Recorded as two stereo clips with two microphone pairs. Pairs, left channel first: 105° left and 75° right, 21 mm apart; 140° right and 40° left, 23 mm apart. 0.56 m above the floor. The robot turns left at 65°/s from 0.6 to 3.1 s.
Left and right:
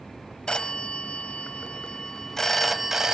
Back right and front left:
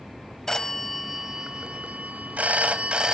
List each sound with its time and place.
0.5 s a phone ringing: 150° left, 1.7 m; by 3.1 s 10° right, 1.7 m